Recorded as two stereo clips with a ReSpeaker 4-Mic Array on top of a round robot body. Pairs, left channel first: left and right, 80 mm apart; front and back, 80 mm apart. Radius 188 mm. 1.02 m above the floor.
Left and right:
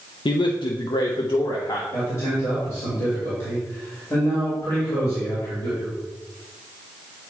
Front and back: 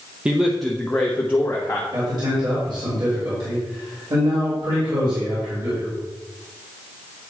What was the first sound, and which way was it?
A man speaking, 105° left.